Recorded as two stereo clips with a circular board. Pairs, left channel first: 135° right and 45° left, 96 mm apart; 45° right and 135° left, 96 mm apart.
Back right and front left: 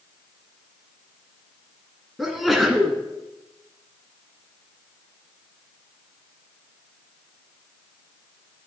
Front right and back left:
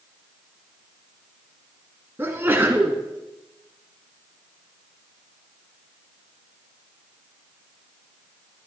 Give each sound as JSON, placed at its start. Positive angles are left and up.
{"t": 2.2, "sound": "a sneeze", "azimuth_deg": 135, "distance_m": 1.1}